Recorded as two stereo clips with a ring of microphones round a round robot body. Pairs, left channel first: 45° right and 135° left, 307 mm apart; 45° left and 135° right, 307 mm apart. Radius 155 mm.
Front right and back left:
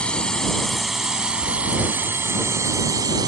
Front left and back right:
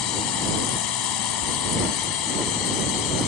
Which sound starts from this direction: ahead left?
A drone, at 0.0 s.